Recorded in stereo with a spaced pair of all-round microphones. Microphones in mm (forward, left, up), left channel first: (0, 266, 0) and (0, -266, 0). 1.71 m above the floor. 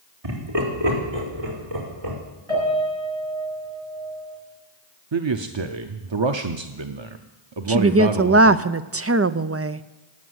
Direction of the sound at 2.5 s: 70° right (ahead or behind).